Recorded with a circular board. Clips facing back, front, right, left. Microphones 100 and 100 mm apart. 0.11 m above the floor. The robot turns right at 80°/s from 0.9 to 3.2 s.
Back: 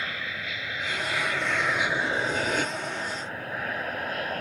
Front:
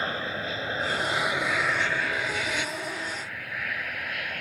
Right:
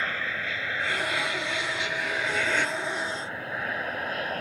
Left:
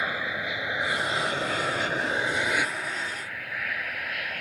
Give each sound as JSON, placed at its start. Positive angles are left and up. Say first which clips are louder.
{"t": 0.0, "sound": "an aircraft", "louder": "front 4 dB, left 1 dB", "azimuth_deg": 25}